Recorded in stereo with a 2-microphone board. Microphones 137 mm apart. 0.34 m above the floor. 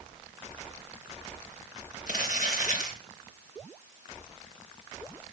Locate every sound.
2.1 s crumpling: 75° left (ahead or behind), 4.5 m